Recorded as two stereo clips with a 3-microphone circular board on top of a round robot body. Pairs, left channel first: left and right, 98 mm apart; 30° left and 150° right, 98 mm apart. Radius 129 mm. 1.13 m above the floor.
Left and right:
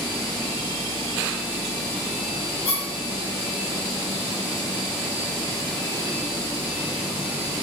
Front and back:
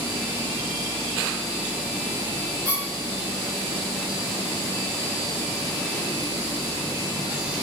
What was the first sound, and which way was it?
A squeak, 80° left.